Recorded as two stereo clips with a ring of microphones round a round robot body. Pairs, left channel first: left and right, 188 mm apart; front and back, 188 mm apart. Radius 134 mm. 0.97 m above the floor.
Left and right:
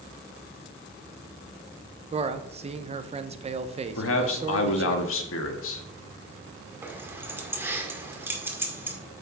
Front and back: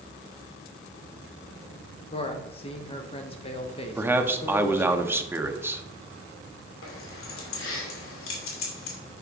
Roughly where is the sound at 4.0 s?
Left.